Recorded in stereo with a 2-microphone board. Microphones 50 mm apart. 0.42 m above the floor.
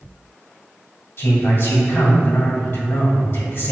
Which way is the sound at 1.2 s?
60° left (ahead or behind).